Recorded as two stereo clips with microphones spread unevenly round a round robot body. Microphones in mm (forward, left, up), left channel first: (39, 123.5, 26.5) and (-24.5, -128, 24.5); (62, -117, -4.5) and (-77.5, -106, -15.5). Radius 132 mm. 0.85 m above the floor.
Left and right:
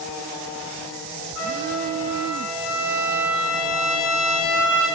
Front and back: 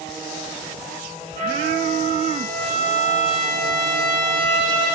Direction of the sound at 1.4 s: 115° left.